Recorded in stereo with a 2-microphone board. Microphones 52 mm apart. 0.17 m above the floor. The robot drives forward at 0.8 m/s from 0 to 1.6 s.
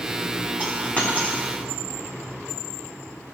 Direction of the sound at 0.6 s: 30° left (ahead or behind).